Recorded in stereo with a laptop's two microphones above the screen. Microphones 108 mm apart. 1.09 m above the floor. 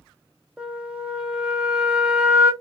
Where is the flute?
10° right (ahead or behind), 0.6 m.